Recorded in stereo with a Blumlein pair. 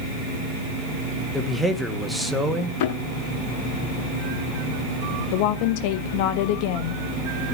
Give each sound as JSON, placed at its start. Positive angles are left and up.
{"t": 1.3, "sound": "a man speaking", "azimuth_deg": 5, "distance_m": 2.5}
{"t": 2.8, "sound": "a thud", "azimuth_deg": 50, "distance_m": 6.5}
{"t": 5.3, "sound": "a woman speaking", "azimuth_deg": 45, "distance_m": 1.0}